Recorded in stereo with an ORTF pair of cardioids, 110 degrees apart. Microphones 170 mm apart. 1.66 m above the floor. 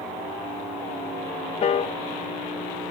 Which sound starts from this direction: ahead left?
A piano, at 1.6 s.